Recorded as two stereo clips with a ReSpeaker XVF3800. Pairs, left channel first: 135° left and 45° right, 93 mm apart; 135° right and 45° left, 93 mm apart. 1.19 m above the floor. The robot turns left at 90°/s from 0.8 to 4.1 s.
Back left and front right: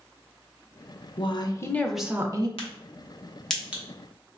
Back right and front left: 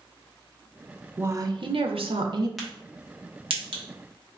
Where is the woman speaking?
115° left, 0.5 m; by 2.5 s 5° right, 0.5 m.